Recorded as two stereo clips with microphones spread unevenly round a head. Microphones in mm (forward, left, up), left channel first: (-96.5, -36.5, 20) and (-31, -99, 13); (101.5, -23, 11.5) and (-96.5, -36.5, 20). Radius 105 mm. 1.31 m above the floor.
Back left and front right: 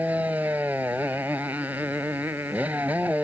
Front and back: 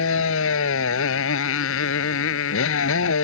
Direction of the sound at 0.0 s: 40° left.